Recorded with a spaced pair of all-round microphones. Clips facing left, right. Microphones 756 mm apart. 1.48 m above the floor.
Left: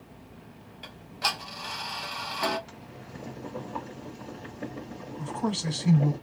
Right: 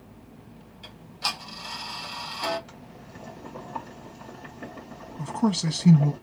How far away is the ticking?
About 1.3 m.